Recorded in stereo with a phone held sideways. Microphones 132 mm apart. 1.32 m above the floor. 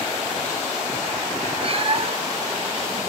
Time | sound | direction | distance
1.6 | a cat meowing | 45° right (ahead or behind) | 0.7 m